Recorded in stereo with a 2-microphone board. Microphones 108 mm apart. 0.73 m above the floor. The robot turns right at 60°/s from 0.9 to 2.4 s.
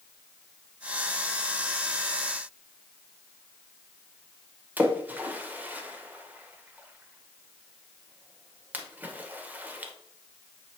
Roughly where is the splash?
Centre.